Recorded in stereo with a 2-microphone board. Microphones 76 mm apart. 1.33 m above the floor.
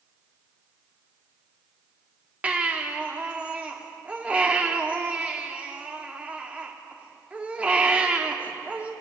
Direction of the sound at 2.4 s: 20° right (ahead or behind).